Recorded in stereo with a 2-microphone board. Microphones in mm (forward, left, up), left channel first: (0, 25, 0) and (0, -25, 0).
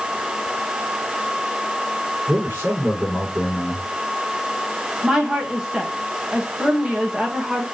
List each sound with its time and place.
2.3 s a man speaking: 40° right (ahead or behind), 6 m
5.0 s a woman speaking: 15° right (ahead or behind), 1.6 m